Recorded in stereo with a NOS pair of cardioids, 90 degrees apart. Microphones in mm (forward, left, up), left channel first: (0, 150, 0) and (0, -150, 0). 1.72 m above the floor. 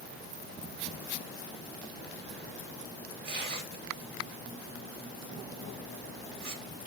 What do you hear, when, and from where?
3.2 s tearing paper: 30° right, 1.6 m